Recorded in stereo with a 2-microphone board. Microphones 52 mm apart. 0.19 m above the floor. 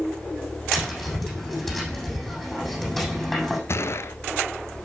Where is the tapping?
5° left (ahead or behind), 7 m.